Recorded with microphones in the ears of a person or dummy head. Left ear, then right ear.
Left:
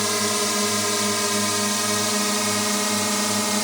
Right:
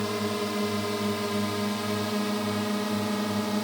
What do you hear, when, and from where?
0.0 s a drone: 70° left (ahead or behind); by 3.6 s 60° left (ahead or behind)